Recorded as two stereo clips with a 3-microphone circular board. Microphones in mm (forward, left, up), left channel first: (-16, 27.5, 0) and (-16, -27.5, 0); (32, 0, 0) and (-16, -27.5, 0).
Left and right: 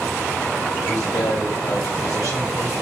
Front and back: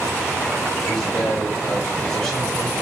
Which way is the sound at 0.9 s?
105° left.